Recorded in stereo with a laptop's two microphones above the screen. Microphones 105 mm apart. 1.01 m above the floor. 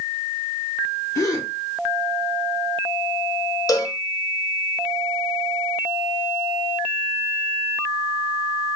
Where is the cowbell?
30° left (ahead or behind), 0.6 m.